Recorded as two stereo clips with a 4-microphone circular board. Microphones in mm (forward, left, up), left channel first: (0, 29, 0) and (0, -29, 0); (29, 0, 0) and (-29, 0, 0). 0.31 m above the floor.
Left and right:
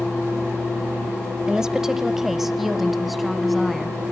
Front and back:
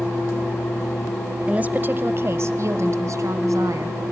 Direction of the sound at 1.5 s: 150° right.